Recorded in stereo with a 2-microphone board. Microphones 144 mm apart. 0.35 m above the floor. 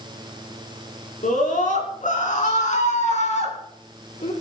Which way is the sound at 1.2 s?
70° left (ahead or behind).